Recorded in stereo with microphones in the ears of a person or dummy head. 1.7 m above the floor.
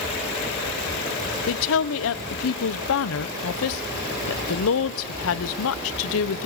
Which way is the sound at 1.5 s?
80° left.